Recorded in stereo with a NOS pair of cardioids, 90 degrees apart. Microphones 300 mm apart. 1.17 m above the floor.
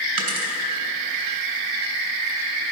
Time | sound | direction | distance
0.2 | a dropped coin | 65° right | 3 m